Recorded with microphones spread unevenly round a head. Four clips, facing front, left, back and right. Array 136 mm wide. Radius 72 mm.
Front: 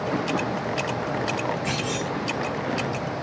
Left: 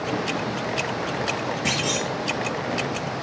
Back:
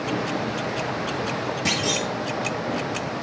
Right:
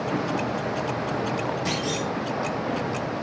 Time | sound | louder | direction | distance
1.6 | a clunk | left 1 dB, back 2 dB | 150° left | 6.5 m